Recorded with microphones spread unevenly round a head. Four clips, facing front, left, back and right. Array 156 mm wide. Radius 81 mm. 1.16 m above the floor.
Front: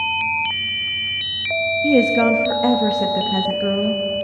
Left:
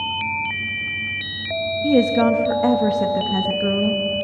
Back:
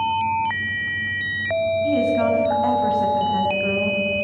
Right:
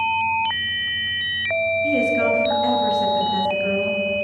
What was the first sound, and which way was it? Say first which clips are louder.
A woman speaking: left 7 dB, front 7 dB; 35° left.